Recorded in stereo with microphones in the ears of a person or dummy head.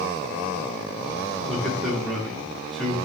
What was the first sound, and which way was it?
A man speaking, centre (ahead or behind).